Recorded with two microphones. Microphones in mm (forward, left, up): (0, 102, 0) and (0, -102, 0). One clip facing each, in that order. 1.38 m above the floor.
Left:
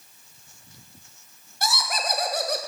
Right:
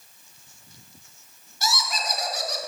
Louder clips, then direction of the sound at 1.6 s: Left 1 dB; 55° left (ahead or behind).